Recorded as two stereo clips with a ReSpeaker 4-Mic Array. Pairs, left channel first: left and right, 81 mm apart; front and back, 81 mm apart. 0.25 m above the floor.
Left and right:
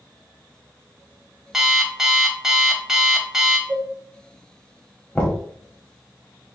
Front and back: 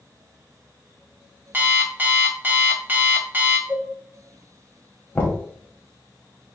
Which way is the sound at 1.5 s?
160° right.